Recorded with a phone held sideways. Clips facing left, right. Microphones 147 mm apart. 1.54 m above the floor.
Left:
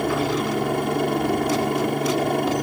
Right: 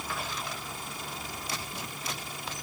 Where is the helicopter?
70° left (ahead or behind).